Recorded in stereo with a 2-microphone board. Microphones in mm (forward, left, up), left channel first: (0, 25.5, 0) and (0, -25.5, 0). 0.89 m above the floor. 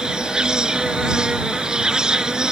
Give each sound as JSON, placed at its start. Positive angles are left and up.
{"t": 0.0, "sound": "an insect", "side_deg": -15}